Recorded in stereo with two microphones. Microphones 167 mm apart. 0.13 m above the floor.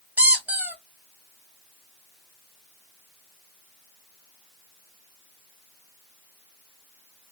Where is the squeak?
10° right (ahead or behind), 0.6 m.